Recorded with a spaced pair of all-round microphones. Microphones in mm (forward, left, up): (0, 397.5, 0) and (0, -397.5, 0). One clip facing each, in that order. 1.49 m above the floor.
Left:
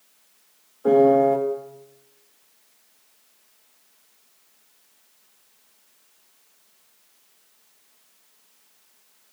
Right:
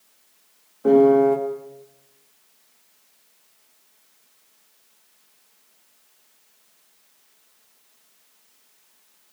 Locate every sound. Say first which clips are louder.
0.8 s a piano: right 2 dB; 55° right (ahead or behind), 5.5 m